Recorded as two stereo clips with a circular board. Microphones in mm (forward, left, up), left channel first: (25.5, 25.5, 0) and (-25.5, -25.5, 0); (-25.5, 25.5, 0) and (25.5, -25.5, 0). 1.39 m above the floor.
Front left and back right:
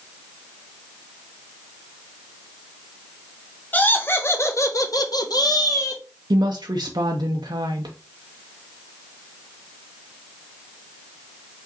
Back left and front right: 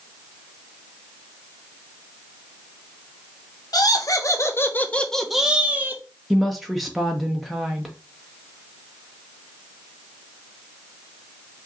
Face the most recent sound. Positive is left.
turn(degrees=-135)